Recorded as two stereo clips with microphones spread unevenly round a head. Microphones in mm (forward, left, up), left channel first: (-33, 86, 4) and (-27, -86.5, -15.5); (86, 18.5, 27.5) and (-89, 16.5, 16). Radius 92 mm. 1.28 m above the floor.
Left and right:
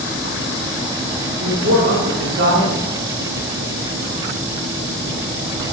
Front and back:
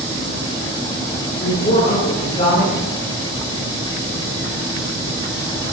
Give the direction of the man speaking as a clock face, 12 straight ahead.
2 o'clock.